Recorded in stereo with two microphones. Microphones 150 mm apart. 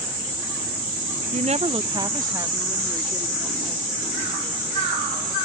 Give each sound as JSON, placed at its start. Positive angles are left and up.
{"t": 1.3, "sound": "a woman speaking", "side_deg": -50}